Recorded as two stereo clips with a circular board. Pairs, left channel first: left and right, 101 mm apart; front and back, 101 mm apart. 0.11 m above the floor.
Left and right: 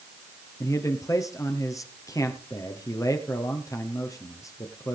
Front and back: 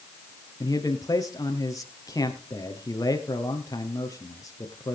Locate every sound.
0.6 s a man speaking: 45° left, 2 m